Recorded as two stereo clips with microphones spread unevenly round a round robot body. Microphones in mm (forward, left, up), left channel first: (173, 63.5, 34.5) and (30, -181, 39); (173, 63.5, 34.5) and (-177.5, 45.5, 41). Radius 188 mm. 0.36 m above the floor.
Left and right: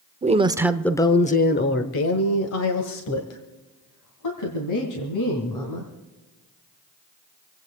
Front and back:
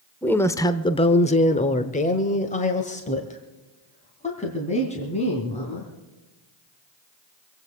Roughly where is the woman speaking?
Right.